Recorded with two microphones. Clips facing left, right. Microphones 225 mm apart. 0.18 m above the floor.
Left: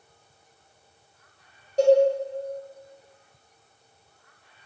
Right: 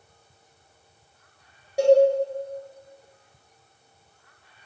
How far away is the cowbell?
About 0.9 m.